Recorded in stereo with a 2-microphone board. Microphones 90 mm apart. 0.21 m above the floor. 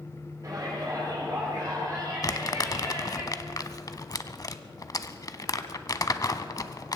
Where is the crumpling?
40° left (ahead or behind), 0.6 m.